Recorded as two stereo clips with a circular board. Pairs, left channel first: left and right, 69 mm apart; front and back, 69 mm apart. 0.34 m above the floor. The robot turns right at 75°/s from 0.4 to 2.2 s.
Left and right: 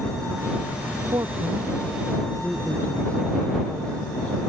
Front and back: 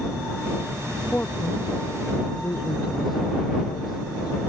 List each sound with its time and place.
1.0 s a man speaking: 75° right; by 4.4 s 15° left